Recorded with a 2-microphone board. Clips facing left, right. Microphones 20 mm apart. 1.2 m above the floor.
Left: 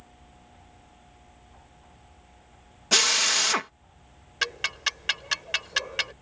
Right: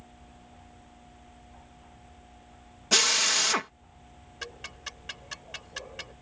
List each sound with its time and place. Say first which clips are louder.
2.9 s a drill: left 2 dB; 15° left (ahead or behind)
4.4 s ticking: left 13 dB; 50° left (ahead or behind)